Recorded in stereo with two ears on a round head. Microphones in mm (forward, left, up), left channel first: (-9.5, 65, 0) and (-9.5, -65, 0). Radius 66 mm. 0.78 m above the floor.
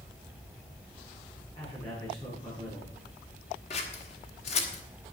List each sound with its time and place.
1.6 s a man speaking: 40° left (ahead or behind), 6 m
3.7 s scissors: 45° left (ahead or behind), 1.6 m